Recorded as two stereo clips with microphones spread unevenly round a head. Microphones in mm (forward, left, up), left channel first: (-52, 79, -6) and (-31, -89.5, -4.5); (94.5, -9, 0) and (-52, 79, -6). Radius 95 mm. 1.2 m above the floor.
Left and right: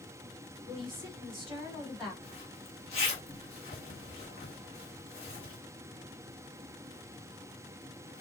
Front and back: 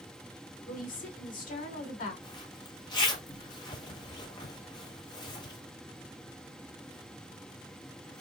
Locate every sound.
0.7 s a woman speaking: 10° left, 3.5 m
2.2 s a zipper: 35° left, 1.4 m